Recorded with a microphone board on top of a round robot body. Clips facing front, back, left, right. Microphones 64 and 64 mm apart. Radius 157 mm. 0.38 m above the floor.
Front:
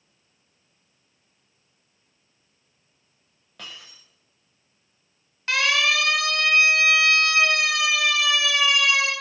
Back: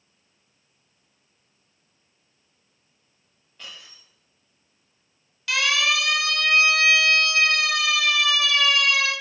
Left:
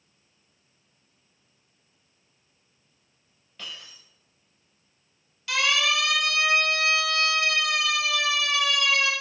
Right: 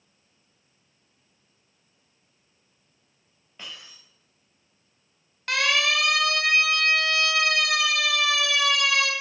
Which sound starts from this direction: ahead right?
A siren, at 5.5 s.